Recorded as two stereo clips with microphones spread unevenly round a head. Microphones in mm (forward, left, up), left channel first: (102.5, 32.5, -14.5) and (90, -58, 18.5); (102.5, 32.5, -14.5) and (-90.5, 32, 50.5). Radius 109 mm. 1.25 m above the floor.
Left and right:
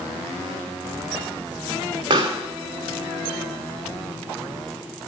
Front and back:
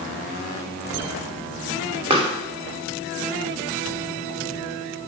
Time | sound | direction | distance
2.1 | a pop | 120° right | 2.5 m